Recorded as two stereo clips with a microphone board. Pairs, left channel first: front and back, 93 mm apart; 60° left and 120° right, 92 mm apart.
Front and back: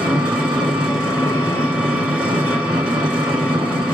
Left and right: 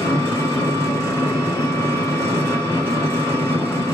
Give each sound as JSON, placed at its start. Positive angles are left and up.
{"t": 0.0, "sound": "an engine running", "azimuth_deg": 105, "distance_m": 1.8}